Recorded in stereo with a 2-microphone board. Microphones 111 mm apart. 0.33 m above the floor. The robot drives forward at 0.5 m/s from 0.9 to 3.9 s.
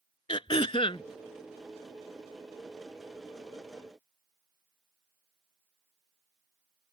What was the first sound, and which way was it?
Throat clearing, 55° left (ahead or behind).